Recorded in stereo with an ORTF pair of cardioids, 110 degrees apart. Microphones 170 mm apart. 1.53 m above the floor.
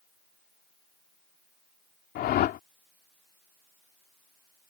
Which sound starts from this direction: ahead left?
A whoosh, at 2.1 s.